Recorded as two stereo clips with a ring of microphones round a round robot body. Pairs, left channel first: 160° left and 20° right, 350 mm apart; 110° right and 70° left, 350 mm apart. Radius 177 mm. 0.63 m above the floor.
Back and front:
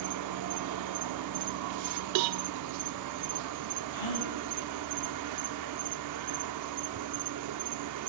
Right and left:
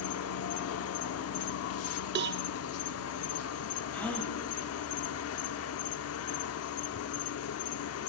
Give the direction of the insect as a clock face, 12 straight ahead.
2 o'clock.